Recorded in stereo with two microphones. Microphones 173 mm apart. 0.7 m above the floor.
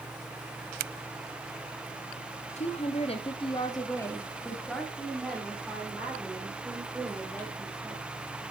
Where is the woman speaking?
40° left (ahead or behind), 1.1 m; by 8.1 s 10° right (ahead or behind), 4.5 m.